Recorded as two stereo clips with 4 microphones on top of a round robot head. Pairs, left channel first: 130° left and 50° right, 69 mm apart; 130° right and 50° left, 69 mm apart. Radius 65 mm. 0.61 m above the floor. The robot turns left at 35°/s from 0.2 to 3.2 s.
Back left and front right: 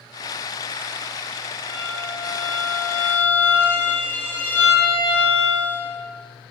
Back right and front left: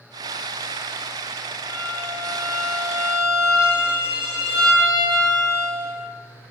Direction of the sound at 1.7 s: 130° left.